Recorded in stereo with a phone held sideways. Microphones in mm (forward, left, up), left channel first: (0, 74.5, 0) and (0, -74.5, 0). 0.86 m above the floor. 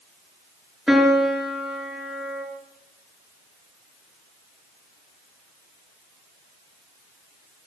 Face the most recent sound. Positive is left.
turn(degrees=-5)  # may be behind; listen again after turning